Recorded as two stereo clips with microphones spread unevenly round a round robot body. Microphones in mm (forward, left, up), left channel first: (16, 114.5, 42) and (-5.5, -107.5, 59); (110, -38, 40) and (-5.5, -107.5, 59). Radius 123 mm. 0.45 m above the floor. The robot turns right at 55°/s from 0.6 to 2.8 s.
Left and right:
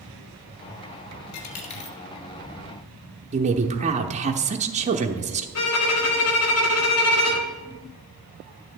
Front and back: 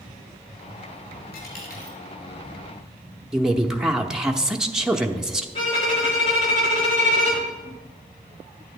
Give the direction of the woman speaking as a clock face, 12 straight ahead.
2 o'clock.